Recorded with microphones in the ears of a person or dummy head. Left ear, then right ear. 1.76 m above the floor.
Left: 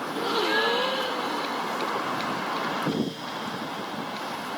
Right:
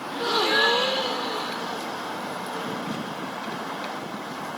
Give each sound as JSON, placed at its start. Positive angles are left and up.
{"t": 0.1, "sound": "a gasp", "side_deg": -25}